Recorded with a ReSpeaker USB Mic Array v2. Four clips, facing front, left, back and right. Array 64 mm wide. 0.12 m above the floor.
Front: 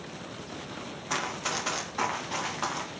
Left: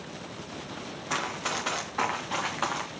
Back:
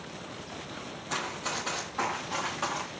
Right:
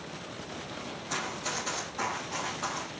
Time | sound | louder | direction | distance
1.1 | running footsteps | left 4 dB, front 2 dB | 55° left | 2.5 m